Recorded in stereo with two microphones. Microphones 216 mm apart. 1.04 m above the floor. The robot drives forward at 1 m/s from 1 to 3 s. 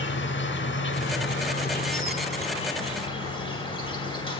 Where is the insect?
60° left (ahead or behind), 1.0 m; by 4.4 s 25° left (ahead or behind), 2 m.